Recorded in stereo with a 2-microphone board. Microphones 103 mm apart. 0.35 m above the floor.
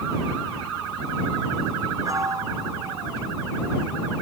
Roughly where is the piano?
Right.